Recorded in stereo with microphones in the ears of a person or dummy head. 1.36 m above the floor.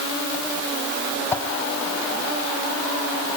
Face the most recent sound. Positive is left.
turn(degrees=10)  # may be behind; listen again after turning